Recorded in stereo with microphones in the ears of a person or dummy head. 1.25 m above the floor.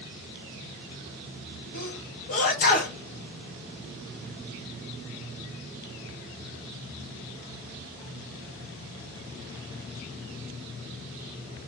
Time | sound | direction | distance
1.7 | a sneeze | 50° left (ahead or behind) | 0.7 m